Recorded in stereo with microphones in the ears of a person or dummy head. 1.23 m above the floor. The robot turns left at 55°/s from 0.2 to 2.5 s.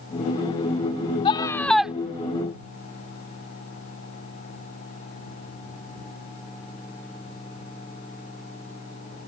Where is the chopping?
I don't hear chopping.